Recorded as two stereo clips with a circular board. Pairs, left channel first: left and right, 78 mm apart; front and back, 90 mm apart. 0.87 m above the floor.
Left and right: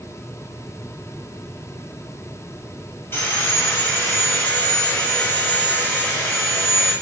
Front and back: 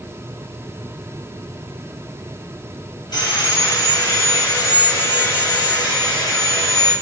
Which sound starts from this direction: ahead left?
Sawing, at 3.1 s.